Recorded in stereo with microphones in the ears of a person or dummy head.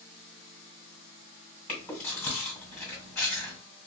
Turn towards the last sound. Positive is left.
turn(degrees=10)  # may be behind; listen again after turning